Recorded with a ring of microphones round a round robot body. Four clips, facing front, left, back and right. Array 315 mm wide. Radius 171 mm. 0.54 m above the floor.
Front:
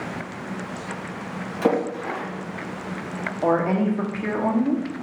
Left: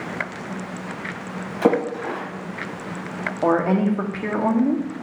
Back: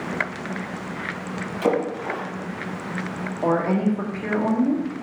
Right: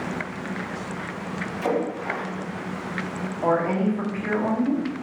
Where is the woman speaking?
80° left, 1.4 m.